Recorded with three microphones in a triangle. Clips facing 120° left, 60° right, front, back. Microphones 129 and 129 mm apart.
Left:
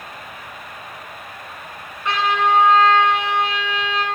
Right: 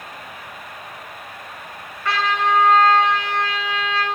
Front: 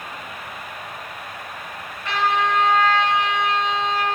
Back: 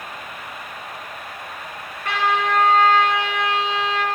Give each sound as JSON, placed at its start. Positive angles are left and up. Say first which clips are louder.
{"t": 2.0, "sound": "a trumpet", "louder": "left 2 dB, even", "azimuth_deg": -175, "distance_m": 2.5}